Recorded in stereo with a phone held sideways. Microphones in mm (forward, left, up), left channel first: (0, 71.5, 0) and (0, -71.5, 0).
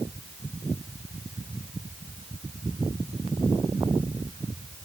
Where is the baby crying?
No baby crying in this recording.